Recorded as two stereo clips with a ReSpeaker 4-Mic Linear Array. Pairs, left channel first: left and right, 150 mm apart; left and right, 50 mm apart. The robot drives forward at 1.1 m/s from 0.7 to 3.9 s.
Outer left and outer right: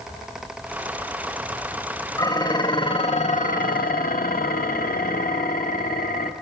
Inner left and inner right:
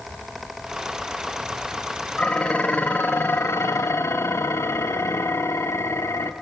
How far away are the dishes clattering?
About 2 m.